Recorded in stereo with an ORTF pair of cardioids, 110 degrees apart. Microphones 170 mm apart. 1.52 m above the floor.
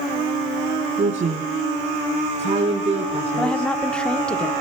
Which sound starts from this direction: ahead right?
A woman speaking, at 1.0 s.